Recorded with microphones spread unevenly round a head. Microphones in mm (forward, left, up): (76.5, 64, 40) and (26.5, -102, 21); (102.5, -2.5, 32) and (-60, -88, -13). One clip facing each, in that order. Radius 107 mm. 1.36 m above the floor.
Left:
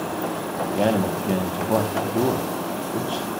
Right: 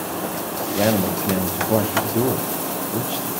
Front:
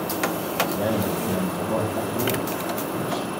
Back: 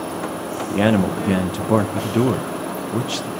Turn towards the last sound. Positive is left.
turn(degrees=170)